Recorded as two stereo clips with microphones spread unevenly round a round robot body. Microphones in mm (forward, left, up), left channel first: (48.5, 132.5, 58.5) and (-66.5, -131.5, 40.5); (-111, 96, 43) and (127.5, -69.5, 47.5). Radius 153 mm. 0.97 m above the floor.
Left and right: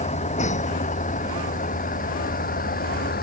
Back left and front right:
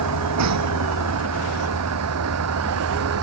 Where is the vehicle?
Straight ahead; by 3.2 s 5° left.